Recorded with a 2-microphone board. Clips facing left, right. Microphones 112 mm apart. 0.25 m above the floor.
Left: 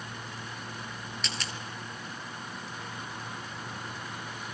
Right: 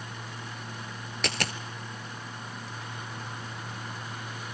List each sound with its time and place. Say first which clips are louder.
1.2 s a dropped coin: right 9 dB; 65° right (ahead or behind), 1.0 m